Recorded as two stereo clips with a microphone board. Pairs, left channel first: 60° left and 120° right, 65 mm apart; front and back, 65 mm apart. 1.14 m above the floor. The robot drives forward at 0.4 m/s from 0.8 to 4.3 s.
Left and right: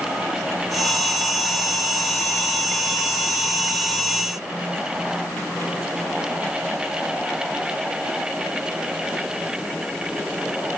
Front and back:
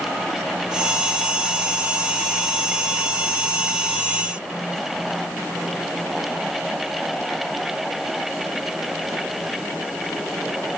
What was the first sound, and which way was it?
Only background noise.